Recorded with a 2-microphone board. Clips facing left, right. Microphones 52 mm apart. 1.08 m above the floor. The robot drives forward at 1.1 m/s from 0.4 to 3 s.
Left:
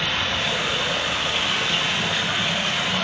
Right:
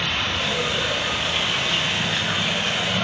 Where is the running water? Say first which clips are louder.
Even; 10° right (ahead or behind), 6.5 m; by 3.0 s 15° right (ahead or behind), 3.5 m.